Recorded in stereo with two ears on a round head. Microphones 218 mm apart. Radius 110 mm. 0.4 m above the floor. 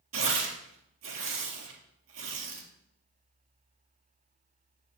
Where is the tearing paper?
55° right (ahead or behind), 1.7 m.